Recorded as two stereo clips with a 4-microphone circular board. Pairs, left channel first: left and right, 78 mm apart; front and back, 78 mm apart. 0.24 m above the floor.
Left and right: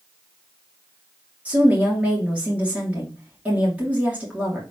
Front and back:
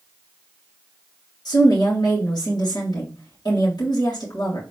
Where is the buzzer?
I don't hear a buzzer.